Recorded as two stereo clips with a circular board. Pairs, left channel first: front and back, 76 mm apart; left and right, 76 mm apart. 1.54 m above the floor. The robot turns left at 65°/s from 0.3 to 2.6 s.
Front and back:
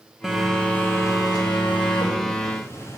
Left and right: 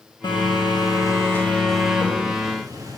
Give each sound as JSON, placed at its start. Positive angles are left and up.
{"t": 0.2, "sound": "a phone buzzing", "azimuth_deg": 95, "distance_m": 2.5}